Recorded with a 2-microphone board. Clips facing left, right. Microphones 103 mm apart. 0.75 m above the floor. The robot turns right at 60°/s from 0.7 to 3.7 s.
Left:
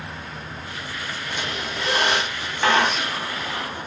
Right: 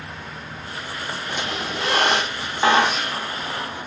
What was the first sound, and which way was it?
A squeak, 105° right.